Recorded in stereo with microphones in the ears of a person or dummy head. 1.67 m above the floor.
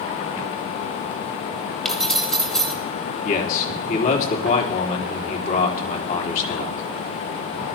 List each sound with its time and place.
1.9 s keys jangling: 5° left (ahead or behind), 2.5 m
3.2 s a man speaking: 45° left (ahead or behind), 3 m